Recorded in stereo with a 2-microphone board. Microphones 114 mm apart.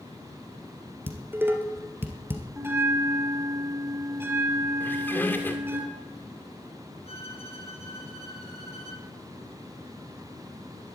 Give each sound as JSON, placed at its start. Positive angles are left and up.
{"t": 1.1, "sound": "dishes clattering", "side_deg": -20, "distance_m": 1.9}
{"t": 2.6, "sound": "a bell", "side_deg": -20, "distance_m": 3.0}
{"t": 4.8, "sound": "a squeak", "side_deg": 20, "distance_m": 2.0}
{"t": 7.0, "sound": "a violin", "side_deg": 65, "distance_m": 4.0}